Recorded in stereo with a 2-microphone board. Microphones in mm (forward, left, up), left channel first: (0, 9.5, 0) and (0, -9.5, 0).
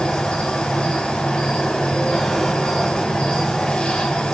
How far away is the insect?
About 3.5 m.